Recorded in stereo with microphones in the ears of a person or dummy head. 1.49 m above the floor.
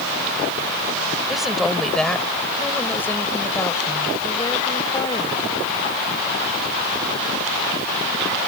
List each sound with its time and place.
1.3 s a woman speaking: 5° right (ahead or behind); by 5.6 s 25° left (ahead or behind)